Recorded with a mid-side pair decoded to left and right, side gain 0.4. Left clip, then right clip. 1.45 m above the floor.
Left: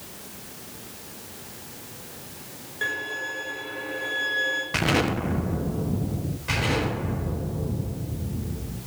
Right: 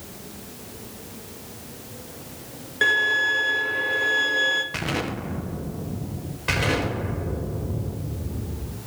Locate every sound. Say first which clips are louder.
2.8 s a violin: right 9 dB; 70° right, 1.4 m
4.7 s an explosion: left 4 dB; 30° left, 0.9 m
6.5 s an explosion: right 2 dB; 65° right, 5 m